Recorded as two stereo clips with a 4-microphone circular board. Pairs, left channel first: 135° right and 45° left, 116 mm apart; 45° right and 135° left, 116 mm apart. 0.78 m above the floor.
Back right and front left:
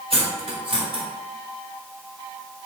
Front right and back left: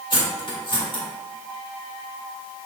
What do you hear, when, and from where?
0.1 s cutlery clinking: 5° left, 1.2 m